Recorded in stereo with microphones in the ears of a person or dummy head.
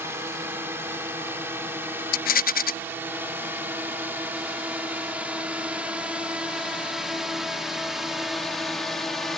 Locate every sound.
0.0 s a drone: 15° right (ahead or behind); by 9.4 s centre (ahead or behind)
2.1 s a rattle: 55° left (ahead or behind)